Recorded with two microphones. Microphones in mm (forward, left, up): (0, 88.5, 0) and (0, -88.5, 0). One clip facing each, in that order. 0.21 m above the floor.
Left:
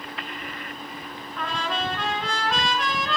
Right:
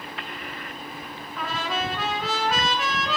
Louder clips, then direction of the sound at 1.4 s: Even; 5° right (ahead or behind).